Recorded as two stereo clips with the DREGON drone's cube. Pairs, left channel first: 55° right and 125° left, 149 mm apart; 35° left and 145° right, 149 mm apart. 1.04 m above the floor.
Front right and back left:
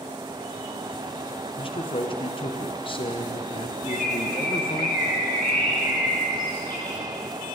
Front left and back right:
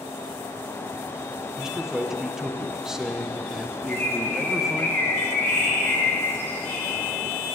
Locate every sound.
1.6 s a man speaking: 65° right, 0.9 m
3.9 s a bird: 40° right, 3 m